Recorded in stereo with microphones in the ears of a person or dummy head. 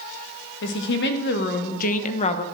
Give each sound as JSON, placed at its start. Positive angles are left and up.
{"t": 0.6, "sound": "a woman speaking", "side_deg": 75, "distance_m": 1.5}